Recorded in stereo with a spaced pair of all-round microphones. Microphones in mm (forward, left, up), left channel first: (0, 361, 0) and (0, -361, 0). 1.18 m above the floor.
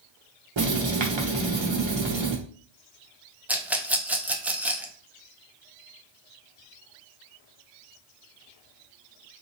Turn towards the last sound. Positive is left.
turn(degrees=0)  # may be behind; listen again after turning